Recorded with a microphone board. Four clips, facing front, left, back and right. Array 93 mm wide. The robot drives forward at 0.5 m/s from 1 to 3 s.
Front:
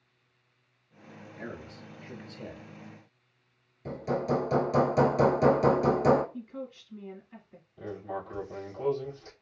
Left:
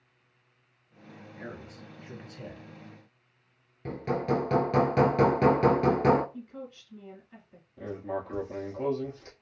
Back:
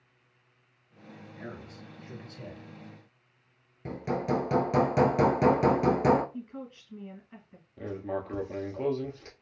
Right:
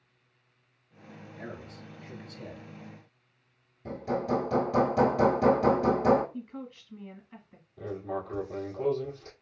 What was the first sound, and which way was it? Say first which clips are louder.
A man speaking: even, front 2 dB; 40° left.